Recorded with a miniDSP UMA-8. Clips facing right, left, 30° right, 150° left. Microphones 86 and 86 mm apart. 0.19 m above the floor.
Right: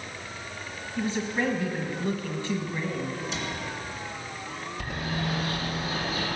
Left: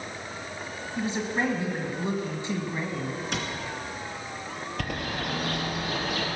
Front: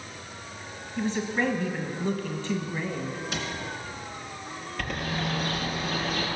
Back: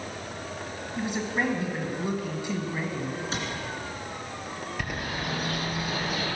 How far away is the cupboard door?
About 2.5 m.